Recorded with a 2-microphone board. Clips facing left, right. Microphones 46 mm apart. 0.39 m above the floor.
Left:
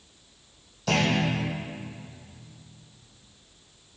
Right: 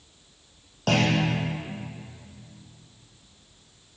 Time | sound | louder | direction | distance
0.9 | a clunk | right 1 dB | 60° right (ahead or behind) | 3.5 m